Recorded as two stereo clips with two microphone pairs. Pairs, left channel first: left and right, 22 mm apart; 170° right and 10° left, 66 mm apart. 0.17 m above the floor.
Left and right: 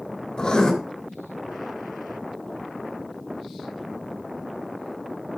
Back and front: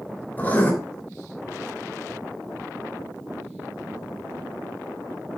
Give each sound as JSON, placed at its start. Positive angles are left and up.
{"t": 0.4, "sound": "writing", "azimuth_deg": 130, "distance_m": 3.0}